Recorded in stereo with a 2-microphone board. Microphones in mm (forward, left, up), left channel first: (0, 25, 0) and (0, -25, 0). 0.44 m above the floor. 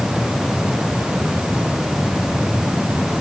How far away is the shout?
No shout in this recording.